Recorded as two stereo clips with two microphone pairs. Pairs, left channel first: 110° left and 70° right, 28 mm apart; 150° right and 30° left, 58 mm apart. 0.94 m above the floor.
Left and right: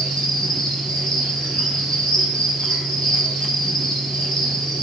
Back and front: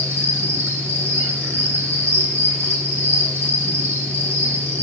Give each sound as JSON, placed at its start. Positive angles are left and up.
{"t": 0.0, "sound": "an insect", "azimuth_deg": 60, "distance_m": 5.0}